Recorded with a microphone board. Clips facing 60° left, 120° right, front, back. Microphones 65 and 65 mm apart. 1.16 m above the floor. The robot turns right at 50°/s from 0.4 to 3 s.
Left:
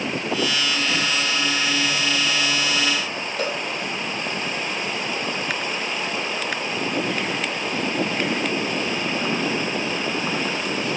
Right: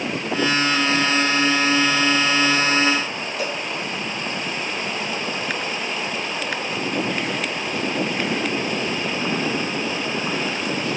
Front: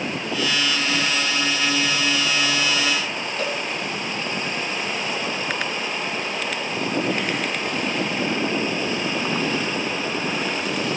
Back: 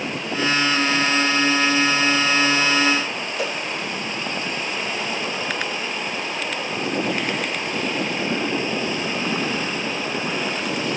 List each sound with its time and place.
3.4 s a cowbell: 100° left, 4.5 m